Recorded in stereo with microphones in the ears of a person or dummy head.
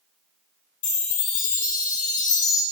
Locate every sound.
0.8 s a chime: 35° left (ahead or behind), 0.6 m